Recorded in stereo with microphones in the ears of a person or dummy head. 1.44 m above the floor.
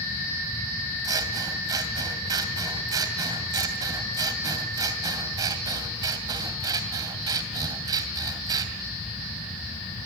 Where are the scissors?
25° right (ahead or behind), 2 m.